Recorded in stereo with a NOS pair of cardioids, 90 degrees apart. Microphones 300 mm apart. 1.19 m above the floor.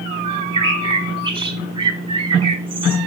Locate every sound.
0.2 s a bird: 15° right, 3.5 m